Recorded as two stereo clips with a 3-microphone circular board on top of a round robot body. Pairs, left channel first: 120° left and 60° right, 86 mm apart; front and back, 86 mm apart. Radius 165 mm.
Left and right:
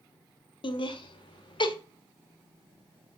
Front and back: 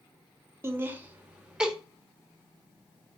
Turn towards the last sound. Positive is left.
turn(degrees=95)